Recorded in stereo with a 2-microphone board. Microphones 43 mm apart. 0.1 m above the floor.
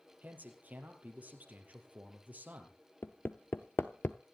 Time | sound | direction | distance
0.2 | a man speaking | 40° right (ahead or behind) | 3 m
3.0 | hammering | 55° left (ahead or behind) | 0.7 m